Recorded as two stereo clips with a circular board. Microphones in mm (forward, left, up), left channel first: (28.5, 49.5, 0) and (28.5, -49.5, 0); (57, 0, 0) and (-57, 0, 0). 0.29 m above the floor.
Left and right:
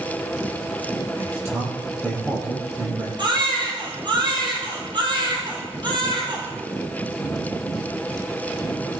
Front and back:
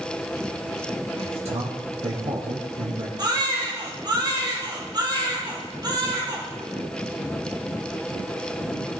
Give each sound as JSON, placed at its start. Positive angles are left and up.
{"t": 1.2, "sound": "a man speaking", "azimuth_deg": -150, "distance_m": 6.5}
{"t": 3.2, "sound": "a baby crying", "azimuth_deg": -125, "distance_m": 4.5}